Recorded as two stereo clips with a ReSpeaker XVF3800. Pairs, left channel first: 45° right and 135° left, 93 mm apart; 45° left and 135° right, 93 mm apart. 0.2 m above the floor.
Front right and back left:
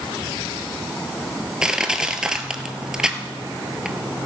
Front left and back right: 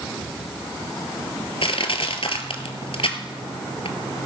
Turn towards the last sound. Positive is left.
turn(degrees=55)